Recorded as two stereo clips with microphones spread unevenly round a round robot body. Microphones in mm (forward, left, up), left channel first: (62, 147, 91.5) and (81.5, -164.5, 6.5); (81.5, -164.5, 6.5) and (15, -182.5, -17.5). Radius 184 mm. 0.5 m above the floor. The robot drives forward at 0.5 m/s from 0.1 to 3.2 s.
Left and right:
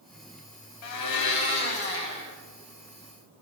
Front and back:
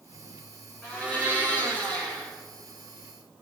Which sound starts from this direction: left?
A blender, at 0.8 s.